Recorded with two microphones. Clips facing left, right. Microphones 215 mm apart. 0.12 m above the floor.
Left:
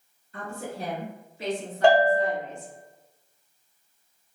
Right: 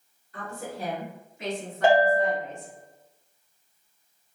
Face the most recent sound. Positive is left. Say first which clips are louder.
# left 1 dB
turn(degrees=-5)  # may be behind; listen again after turning